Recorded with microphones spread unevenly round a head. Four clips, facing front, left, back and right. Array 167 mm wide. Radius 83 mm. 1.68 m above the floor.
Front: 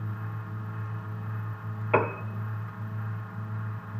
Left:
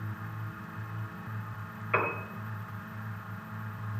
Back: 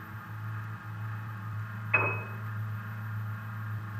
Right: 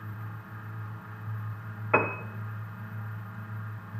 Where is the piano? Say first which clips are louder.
Right 4 dB, front 7 dB; 35° right, 0.6 m.